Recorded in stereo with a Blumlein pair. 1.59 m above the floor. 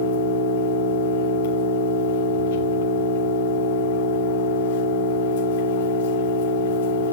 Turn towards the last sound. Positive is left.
turn(degrees=55)